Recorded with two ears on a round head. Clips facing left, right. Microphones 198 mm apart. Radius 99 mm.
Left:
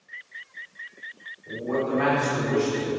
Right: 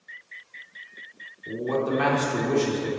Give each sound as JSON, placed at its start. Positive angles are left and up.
{"t": 1.5, "sound": "a man speaking", "side_deg": -70, "distance_m": 3.5}